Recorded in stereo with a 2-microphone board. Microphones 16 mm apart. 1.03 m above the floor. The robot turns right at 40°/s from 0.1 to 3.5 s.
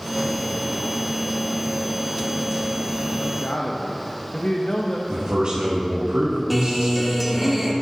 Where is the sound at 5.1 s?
70° right (ahead or behind), 1.4 m.